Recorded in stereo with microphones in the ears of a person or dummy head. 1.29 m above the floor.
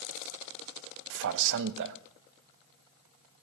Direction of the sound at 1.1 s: 75° right (ahead or behind).